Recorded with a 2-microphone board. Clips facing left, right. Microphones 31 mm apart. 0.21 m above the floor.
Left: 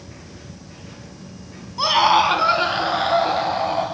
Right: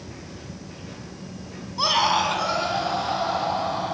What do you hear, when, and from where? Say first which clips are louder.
1.8 s a scream: left 5 dB; 5° left (ahead or behind), 1.2 m; by 3.9 s 65° left (ahead or behind), 3.5 m